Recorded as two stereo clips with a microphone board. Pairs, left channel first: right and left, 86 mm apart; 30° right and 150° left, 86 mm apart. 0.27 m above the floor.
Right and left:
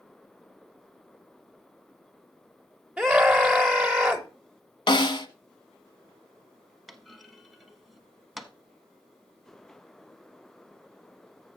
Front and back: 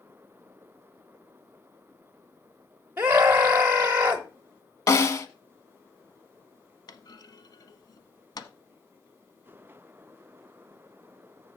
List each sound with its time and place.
3.0 s a scream: 165° left, 1.0 m
4.9 s a snare drum: 80° right, 0.8 m
6.9 s a clunk: straight ahead, 0.9 m